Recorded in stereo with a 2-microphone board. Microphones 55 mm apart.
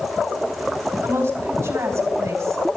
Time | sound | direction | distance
1.0 | a woman speaking | 45° right (ahead or behind) | 3 m